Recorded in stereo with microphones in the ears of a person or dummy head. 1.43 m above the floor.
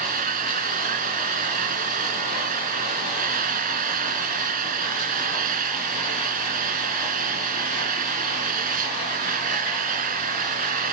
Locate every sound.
0.0 s an engine running: 50° right (ahead or behind)